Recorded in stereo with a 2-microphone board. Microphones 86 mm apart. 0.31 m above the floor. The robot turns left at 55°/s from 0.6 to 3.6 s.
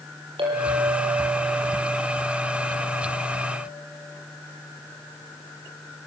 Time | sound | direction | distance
0.4 | a clink | 90° right | 7.5 m